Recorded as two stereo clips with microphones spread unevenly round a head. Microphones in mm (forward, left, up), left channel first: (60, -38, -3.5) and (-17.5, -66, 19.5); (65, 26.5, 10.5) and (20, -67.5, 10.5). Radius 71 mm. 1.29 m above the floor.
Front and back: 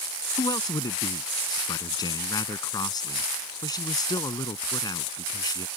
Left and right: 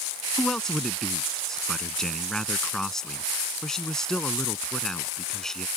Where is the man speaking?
20° right.